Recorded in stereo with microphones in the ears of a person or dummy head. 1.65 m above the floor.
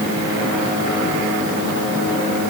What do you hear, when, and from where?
Only background noise.